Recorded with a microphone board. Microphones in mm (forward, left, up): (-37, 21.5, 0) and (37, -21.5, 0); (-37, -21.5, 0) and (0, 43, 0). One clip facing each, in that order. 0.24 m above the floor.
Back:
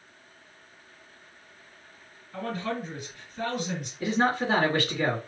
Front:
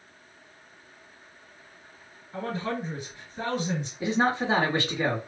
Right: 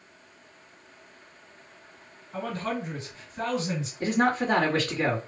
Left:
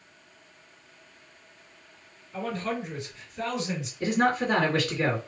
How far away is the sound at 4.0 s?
About 1.6 m.